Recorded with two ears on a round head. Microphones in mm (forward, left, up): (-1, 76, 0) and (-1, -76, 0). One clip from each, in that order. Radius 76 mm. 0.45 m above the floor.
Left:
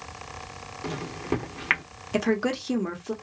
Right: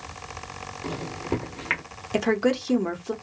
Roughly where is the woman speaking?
Centre.